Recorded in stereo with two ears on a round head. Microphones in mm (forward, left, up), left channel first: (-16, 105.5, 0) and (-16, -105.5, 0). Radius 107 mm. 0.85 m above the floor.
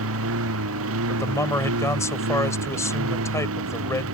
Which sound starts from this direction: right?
A lawn mower, at 0.0 s.